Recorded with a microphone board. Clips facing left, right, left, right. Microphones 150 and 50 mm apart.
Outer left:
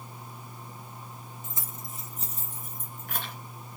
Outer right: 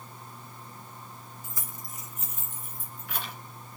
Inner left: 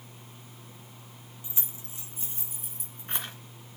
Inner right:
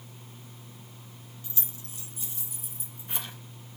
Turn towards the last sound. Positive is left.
turn(degrees=50)  # may be behind; listen again after turning